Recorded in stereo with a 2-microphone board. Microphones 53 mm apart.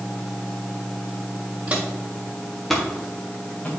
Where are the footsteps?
20° right (ahead or behind), 3 m; by 3.7 s 20° left (ahead or behind), 4.5 m.